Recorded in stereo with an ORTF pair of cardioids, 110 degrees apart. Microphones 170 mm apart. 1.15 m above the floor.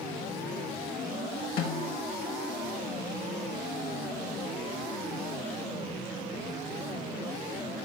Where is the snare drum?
70° left, 3.5 m.